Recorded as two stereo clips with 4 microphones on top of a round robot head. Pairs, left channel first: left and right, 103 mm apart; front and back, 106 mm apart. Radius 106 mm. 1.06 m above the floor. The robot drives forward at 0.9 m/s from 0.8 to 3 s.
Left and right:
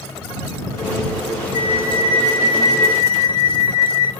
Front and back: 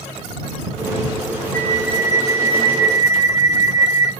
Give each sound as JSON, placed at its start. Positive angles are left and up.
{"t": 1.5, "sound": "a flute", "azimuth_deg": 65, "distance_m": 0.7}